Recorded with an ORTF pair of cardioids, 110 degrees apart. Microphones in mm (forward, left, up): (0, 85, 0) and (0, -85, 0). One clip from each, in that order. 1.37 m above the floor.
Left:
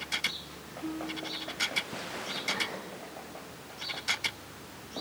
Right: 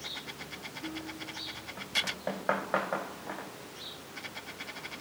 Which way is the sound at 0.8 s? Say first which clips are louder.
Left 7 dB; 25° left.